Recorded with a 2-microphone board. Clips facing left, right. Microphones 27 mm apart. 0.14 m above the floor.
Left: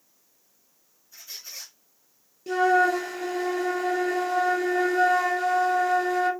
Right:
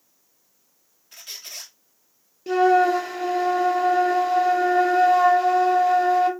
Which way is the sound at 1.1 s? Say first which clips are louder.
Right 3 dB; 70° right (ahead or behind).